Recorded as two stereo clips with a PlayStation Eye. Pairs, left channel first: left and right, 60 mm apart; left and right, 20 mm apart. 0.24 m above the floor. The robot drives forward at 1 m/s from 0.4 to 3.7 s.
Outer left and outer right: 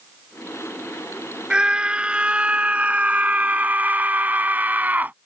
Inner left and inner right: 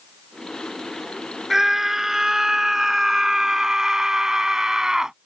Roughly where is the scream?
Centre.